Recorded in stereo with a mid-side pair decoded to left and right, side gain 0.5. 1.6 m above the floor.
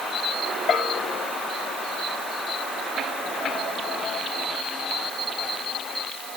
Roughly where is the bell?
Ahead left.